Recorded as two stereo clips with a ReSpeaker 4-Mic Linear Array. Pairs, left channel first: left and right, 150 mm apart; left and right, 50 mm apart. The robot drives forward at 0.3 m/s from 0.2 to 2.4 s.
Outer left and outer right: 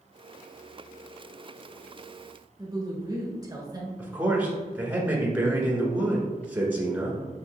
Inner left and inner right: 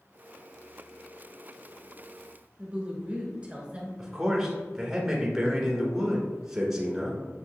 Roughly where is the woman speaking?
Right.